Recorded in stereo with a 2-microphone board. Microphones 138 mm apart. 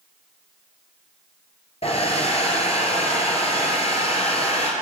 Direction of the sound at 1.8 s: 50° left (ahead or behind).